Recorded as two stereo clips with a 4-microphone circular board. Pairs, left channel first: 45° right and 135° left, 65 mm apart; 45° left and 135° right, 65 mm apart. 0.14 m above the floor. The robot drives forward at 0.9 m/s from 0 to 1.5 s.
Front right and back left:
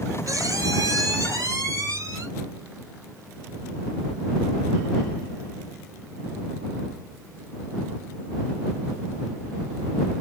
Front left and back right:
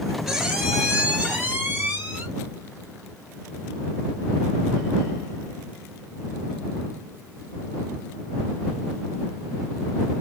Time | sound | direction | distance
0.3 | a squeak | 145° left | 1.1 m